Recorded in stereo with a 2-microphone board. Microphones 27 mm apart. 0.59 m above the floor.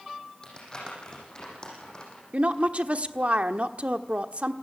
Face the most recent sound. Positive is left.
turn(degrees=-50)  # may be behind; listen again after turning